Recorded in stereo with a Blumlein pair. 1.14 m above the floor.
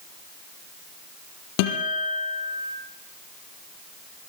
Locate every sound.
1.6 s a guitar: 45° left, 5.5 m